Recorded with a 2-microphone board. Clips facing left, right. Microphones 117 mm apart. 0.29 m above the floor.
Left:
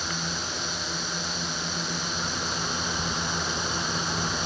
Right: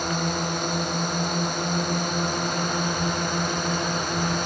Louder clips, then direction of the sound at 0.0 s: Right 8 dB; 55° right (ahead or behind).